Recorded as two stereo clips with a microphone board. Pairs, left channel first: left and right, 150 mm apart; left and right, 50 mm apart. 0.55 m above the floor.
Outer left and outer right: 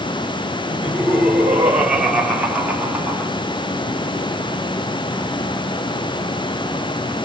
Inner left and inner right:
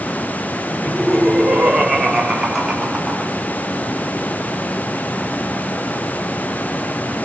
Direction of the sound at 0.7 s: 10° right (ahead or behind).